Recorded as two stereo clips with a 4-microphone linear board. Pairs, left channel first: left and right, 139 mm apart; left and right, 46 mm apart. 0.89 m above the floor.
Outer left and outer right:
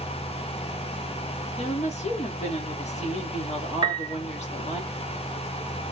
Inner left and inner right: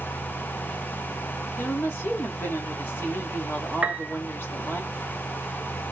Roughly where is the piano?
Right.